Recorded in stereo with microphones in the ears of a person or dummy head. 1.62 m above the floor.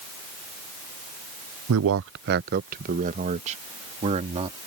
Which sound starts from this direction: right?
A man speaking, at 1.7 s.